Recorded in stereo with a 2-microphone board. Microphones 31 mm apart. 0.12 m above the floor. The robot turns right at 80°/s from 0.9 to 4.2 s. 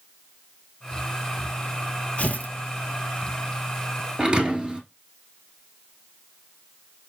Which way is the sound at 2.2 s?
45° left (ahead or behind).